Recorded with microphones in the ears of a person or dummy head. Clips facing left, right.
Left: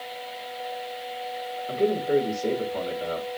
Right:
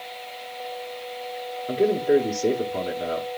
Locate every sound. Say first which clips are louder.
1.7 s a man speaking: right 3 dB; 70° right (ahead or behind), 1.4 m